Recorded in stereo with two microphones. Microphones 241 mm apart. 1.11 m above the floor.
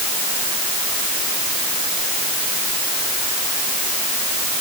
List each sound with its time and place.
Only background noise.